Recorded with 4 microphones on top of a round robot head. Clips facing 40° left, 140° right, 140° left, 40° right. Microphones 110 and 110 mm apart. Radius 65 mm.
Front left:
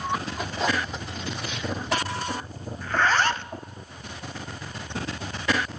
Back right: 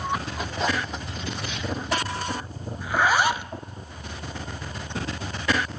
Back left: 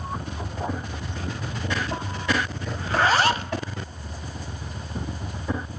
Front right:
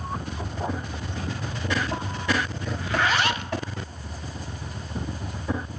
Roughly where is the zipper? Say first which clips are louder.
Back right 1 dB, back left 4 dB; behind left.